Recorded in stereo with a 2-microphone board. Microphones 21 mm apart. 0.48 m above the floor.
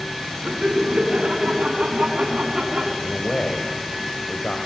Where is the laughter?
75° right (ahead or behind), 5.5 m; by 2.9 s 70° right (ahead or behind), 5.5 m.